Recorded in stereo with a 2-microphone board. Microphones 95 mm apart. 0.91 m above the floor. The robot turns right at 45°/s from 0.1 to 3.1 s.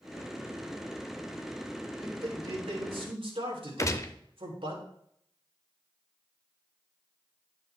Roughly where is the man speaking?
Behind right.